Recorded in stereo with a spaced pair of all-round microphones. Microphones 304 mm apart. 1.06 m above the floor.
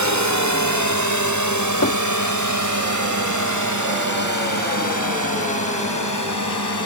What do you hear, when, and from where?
0.0 s a drone: 65° right (ahead or behind); by 6.9 s 75° right (ahead or behind)
1.8 s knocking: 55° left (ahead or behind)